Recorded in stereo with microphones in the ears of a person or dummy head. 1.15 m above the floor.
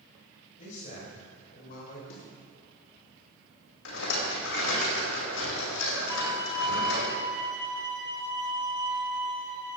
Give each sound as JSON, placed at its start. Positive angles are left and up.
{"t": 0.6, "sound": "a man speaking", "side_deg": 45, "distance_m": 5.5}
{"t": 2.1, "sound": "a snare drum", "side_deg": 80, "distance_m": 5.5}
{"t": 3.9, "sound": "a rattle", "side_deg": 85, "distance_m": 5.0}
{"t": 6.1, "sound": "a violin", "side_deg": -15, "distance_m": 2.5}